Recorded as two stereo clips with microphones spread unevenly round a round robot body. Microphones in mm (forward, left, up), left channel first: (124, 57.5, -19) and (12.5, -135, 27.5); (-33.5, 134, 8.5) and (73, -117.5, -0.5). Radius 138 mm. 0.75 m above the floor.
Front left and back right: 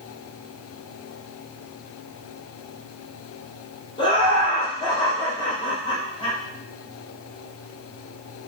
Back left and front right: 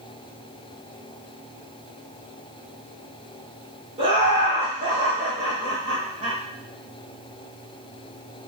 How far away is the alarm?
I don't hear an alarm.